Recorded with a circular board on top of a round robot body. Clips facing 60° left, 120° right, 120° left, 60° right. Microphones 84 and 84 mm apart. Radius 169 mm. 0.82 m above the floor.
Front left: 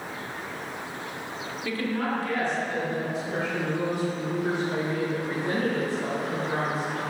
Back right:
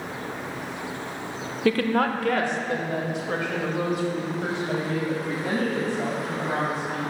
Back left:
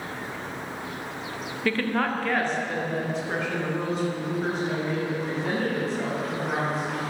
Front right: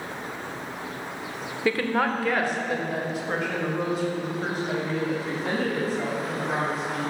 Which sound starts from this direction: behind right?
A woman speaking, at 1.6 s.